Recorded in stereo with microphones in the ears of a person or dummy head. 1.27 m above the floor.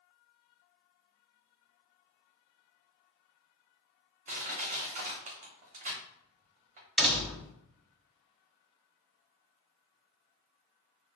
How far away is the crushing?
About 0.8 m.